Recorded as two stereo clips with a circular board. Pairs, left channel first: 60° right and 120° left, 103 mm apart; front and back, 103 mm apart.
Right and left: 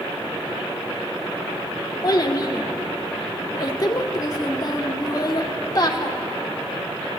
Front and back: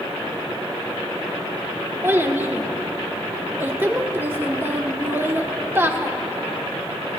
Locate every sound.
2.0 s a child speaking: 110° right, 0.8 m